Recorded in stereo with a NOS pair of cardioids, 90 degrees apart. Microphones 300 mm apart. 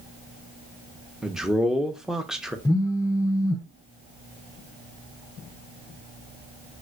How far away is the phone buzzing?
About 0.6 m.